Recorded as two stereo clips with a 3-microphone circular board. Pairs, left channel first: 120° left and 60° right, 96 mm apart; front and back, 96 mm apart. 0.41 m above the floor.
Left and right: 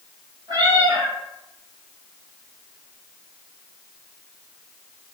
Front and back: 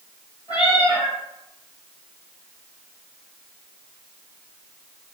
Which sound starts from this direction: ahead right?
A cat meowing, at 0.5 s.